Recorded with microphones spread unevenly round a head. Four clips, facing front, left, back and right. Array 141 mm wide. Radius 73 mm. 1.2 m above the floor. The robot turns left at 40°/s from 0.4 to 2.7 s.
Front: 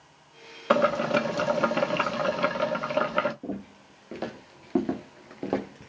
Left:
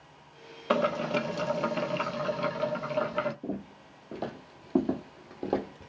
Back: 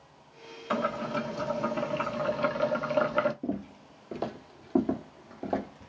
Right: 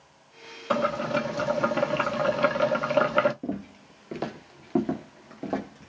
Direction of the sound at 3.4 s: 115° right.